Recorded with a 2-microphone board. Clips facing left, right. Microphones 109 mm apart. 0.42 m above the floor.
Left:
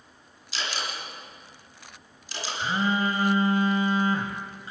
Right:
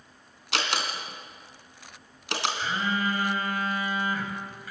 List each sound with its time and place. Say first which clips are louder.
0.5 s a door slam: right 4 dB; 75° right (ahead or behind), 3 m
2.6 s a phone buzzing: left 7 dB; 30° left (ahead or behind), 3 m